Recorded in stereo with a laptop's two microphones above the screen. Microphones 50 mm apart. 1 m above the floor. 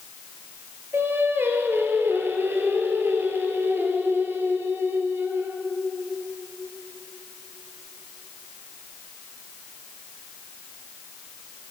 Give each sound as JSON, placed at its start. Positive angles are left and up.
{"t": 0.9, "sound": "singing", "side_deg": -50, "distance_m": 3.5}